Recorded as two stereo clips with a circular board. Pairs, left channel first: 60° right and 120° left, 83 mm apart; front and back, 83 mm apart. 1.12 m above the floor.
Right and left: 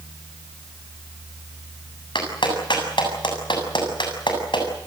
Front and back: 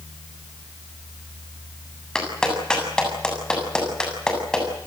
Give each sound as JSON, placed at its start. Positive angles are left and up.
{"t": 2.1, "sound": "a clap", "azimuth_deg": -80, "distance_m": 7.5}